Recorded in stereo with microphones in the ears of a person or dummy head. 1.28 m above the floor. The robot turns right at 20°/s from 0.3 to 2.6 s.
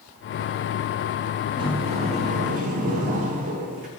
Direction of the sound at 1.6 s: 25° right (ahead or behind).